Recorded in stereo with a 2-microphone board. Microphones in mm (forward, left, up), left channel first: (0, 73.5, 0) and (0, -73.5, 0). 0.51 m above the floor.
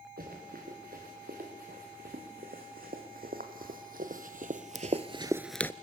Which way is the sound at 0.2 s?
85° right.